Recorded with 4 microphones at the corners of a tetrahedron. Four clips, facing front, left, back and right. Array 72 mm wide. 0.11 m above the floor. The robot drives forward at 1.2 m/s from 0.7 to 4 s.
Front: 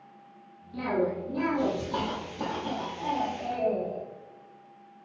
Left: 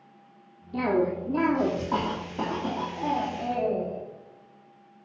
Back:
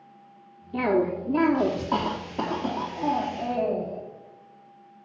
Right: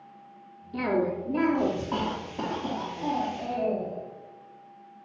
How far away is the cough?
About 1.7 m.